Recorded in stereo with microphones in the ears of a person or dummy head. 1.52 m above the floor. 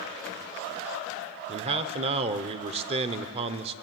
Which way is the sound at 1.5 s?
35° right (ahead or behind).